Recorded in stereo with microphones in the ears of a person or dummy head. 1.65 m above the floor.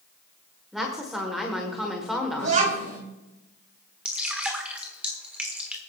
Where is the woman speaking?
Centre (ahead or behind), 1.3 m.